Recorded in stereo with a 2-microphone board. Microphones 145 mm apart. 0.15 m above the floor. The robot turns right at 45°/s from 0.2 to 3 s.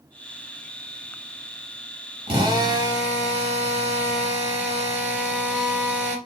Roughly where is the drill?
Ahead right.